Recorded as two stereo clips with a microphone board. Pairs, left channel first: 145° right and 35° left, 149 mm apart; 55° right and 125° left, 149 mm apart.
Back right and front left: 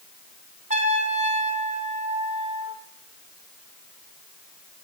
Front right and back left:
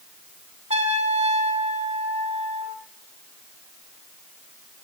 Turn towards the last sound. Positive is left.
turn(degrees=75)